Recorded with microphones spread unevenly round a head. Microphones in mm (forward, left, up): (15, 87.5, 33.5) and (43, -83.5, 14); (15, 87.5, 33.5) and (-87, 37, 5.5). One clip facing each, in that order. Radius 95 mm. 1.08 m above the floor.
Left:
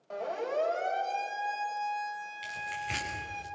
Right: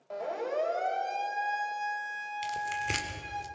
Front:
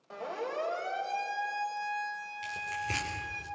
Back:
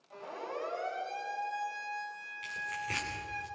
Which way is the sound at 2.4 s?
45° right.